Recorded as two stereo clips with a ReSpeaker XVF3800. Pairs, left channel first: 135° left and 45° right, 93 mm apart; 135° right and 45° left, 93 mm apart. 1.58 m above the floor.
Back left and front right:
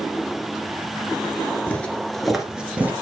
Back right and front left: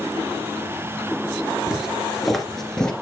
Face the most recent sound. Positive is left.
turn(degrees=-65)